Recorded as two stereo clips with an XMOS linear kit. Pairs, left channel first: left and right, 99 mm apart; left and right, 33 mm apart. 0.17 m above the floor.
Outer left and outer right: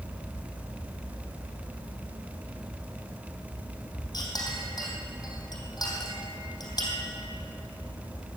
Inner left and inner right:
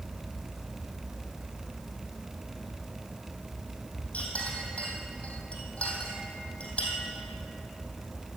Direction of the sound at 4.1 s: 50° left (ahead or behind).